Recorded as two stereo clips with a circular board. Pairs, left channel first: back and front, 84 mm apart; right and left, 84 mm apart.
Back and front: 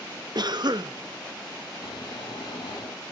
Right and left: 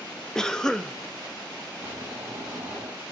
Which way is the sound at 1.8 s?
155° left.